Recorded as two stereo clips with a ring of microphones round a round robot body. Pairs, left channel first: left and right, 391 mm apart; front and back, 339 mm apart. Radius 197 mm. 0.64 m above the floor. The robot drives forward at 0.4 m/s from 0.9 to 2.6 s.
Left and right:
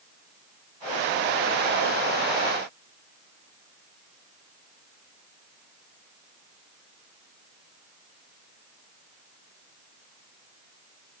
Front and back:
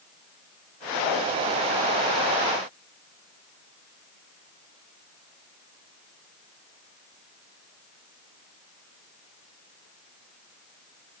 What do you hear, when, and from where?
Only background noise.